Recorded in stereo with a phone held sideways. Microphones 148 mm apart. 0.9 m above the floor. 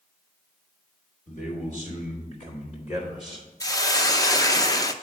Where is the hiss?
25° left (ahead or behind), 0.6 m.